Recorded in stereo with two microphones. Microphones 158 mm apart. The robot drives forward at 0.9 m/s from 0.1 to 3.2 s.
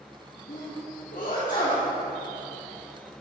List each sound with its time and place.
0.5 s a sneeze: 55° left (ahead or behind), 1.4 m; by 1.9 s 50° left (ahead or behind), 1.5 m